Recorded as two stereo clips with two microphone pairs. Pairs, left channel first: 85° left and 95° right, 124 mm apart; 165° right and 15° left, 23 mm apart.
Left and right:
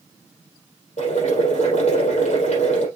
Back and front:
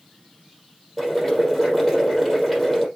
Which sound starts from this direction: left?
Boiling, at 1.0 s.